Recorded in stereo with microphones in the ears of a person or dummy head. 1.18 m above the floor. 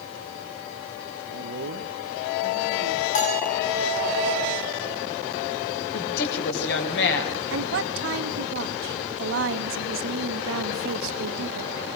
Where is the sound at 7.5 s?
65° right (ahead or behind), 1.8 m.